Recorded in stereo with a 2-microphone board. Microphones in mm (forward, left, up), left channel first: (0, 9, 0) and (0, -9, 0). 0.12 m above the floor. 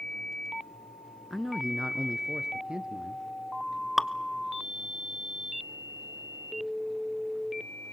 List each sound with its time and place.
1.3 s a man speaking: centre (ahead or behind), 1.3 m; by 3.2 s 60° right (ahead or behind), 2.5 m
4.0 s dripping: 15° right (ahead or behind), 0.7 m